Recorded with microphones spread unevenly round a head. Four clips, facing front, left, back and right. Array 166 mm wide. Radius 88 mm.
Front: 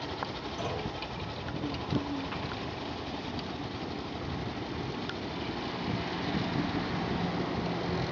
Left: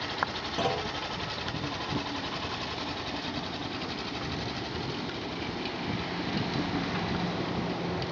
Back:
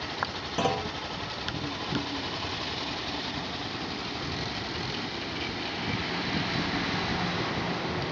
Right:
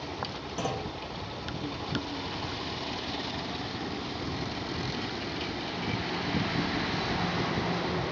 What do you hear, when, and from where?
0.6 s a clunk: 160° left, 2 m